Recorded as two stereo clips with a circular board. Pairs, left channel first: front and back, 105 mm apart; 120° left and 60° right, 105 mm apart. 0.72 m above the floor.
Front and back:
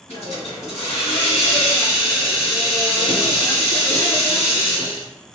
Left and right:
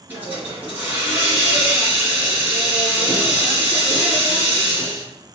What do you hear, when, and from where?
0.1 s a hiss: 15° left, 1.9 m